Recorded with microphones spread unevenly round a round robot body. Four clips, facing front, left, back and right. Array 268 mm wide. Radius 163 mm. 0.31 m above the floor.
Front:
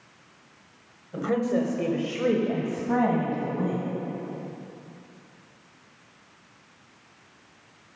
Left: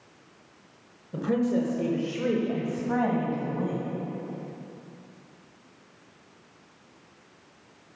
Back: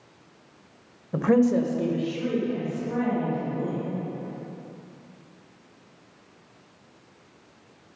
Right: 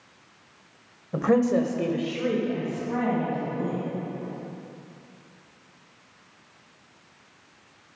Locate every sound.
1.1 s a woman speaking: 120° right, 1.3 m; by 3.8 s 20° left, 3 m